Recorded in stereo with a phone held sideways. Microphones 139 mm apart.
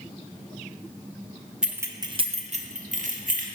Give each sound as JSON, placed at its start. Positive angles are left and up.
{"t": 1.6, "sound": "keys jangling", "side_deg": -5, "distance_m": 0.7}